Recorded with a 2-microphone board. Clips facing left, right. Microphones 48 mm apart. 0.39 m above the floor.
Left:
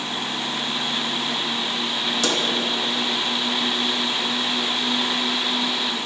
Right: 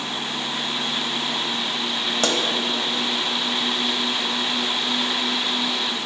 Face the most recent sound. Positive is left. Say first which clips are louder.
# right 2 dB
turn(degrees=-50)  # may be behind; listen again after turning